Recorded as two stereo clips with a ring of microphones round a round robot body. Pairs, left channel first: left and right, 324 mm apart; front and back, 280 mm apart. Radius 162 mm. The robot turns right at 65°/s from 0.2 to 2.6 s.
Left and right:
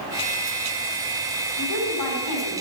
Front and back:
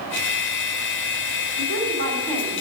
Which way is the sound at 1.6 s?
35° left.